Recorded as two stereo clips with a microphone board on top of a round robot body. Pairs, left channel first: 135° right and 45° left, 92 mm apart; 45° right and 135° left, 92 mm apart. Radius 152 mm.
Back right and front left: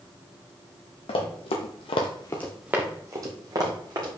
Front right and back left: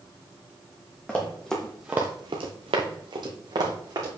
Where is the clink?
No clink in this recording.